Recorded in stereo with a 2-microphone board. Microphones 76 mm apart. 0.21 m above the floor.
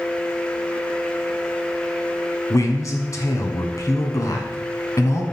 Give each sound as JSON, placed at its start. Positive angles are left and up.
{"t": 2.5, "sound": "a man speaking", "side_deg": 45, "distance_m": 1.5}